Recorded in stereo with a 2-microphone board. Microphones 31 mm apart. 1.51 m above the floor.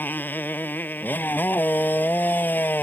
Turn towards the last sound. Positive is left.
turn(degrees=80)